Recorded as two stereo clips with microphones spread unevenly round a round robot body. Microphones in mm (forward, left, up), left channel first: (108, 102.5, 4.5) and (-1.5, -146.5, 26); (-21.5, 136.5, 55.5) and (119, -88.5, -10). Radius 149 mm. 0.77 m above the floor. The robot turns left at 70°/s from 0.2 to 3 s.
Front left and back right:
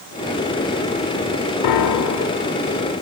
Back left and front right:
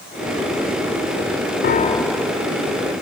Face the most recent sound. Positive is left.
turn(degrees=-30)